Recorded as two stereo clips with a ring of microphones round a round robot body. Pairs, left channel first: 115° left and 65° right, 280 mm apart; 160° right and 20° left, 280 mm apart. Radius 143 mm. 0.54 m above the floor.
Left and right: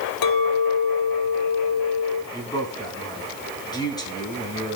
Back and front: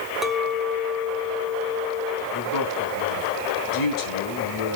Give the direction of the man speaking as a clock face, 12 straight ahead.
6 o'clock.